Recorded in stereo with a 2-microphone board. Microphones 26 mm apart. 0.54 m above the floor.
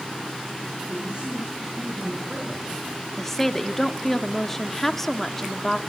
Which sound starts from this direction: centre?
A woman speaking, at 3.2 s.